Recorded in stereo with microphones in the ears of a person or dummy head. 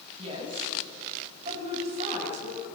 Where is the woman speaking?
35° right (ahead or behind), 8.5 m; by 2.6 s 45° right (ahead or behind), 10 m.